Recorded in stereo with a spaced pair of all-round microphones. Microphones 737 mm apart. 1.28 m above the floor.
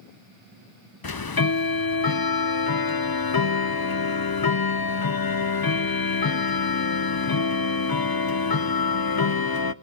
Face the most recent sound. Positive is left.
turn(degrees=35)  # may be behind; listen again after turning